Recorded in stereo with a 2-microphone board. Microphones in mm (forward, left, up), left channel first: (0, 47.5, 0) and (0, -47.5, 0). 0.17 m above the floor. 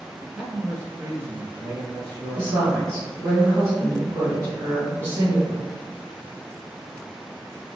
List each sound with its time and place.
0.2 s a man speaking: 5° left (ahead or behind), 1.3 m; by 3.1 s 50° right (ahead or behind), 3 m
2.4 s a woman speaking: 30° right (ahead or behind), 1.9 m